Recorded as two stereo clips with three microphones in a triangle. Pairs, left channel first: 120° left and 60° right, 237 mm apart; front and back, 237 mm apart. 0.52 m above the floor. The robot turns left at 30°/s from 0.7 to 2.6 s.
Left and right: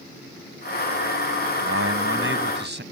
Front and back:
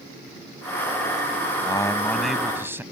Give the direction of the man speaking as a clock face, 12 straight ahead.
2 o'clock.